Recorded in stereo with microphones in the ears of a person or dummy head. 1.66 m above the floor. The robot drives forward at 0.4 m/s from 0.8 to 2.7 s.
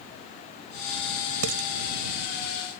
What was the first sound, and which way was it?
Dishes clattering, 65° right (ahead or behind).